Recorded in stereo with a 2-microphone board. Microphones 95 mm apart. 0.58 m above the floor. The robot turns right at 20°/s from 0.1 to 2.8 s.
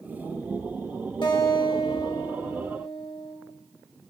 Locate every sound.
1.2 s a guitar: 60° left, 1.6 m; by 3.4 s 95° left, 1.6 m